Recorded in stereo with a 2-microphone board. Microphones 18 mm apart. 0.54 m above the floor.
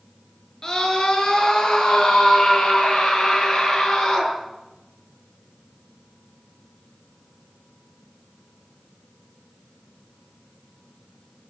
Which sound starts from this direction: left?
A scream, at 0.6 s.